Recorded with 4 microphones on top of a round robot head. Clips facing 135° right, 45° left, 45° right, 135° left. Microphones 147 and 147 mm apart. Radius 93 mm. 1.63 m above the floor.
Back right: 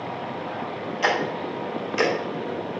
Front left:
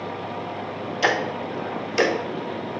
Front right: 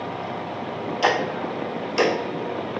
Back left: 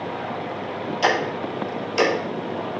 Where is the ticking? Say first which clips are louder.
Front left 1 dB, even; 40° left, 0.8 m.